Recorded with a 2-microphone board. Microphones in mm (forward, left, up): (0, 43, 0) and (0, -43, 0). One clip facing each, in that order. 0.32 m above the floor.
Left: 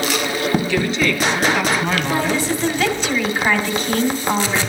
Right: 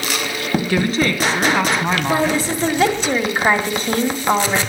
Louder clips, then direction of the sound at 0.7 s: Right 1 dB; 50° right (ahead or behind).